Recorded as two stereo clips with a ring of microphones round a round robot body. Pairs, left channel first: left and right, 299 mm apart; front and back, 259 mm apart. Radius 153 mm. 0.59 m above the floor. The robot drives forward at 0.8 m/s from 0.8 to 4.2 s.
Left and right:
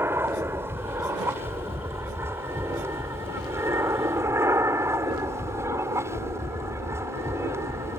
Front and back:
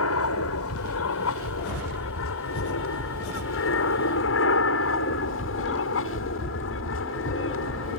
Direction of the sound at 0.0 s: 10° right.